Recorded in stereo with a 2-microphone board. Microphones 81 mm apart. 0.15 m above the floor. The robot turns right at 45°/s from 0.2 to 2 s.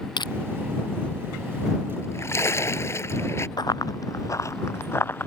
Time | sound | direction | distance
0.2 | crushing | 70° left (ahead or behind) | ?
2.0 | a splash | 35° left (ahead or behind) | ?
3.6 | running footsteps | 60° left (ahead or behind) | ?